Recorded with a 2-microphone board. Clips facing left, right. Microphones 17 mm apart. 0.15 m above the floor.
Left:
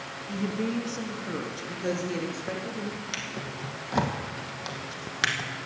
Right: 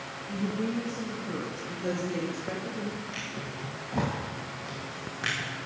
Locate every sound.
0.3 s a woman speaking: 55° left (ahead or behind), 3 m; by 3.0 s 15° left (ahead or behind), 4 m
3.1 s a drawer: 75° left (ahead or behind), 2.5 m